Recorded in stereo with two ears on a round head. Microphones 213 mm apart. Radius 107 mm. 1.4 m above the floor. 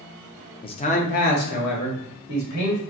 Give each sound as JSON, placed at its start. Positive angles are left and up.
{"t": 0.6, "sound": "a man speaking", "side_deg": 20, "distance_m": 0.5}